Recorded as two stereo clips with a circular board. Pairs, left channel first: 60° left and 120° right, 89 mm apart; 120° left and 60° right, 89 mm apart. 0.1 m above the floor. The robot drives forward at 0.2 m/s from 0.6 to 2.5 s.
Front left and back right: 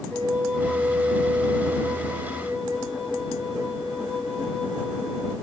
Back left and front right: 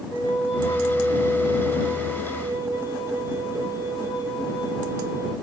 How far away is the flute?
About 1.4 m.